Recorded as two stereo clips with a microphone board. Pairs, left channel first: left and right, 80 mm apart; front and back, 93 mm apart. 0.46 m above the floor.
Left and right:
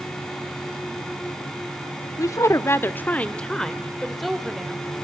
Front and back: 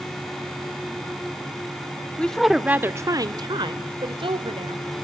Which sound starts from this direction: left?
A woman speaking, at 2.2 s.